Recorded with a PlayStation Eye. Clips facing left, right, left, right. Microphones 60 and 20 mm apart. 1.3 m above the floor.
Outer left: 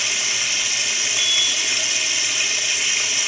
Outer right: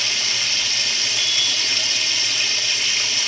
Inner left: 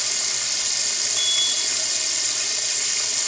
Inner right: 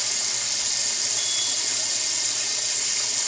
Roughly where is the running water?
Centre.